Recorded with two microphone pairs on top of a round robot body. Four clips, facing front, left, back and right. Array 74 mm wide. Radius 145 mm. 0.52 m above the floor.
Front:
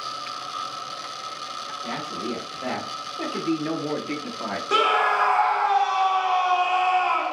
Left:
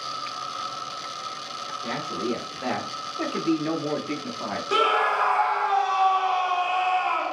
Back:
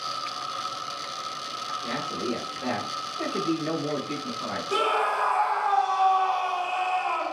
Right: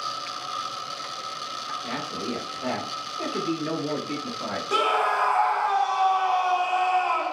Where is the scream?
25° left, 0.9 m.